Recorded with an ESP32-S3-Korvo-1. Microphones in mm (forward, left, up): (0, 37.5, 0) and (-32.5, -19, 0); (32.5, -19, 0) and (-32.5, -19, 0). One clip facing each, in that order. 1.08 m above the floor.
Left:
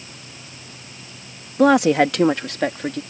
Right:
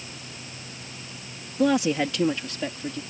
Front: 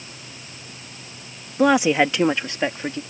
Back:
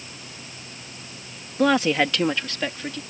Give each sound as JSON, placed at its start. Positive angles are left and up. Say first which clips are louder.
{"t": 1.6, "sound": "a woman speaking", "louder": "left 8 dB, front 3 dB", "azimuth_deg": 80}